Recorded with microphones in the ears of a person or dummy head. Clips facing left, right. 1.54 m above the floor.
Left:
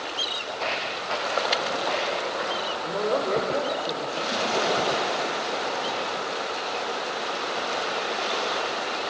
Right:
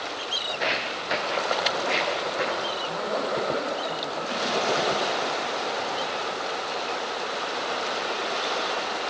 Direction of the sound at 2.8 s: 60° left (ahead or behind).